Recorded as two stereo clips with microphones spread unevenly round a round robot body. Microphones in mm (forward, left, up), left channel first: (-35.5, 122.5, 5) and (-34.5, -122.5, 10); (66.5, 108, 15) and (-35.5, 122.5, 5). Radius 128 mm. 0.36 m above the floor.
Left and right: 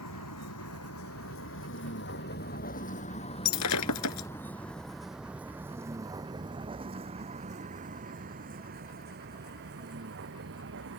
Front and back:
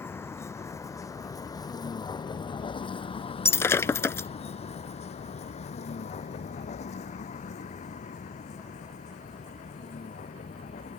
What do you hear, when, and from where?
0.0 s a vehicle: 60° left; by 11.0 s 40° right
3.5 s breaking glass: 60° left